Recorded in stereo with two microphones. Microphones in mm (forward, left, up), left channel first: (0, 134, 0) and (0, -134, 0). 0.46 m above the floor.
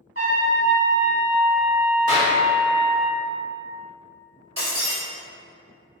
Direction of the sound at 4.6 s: 75° right (ahead or behind).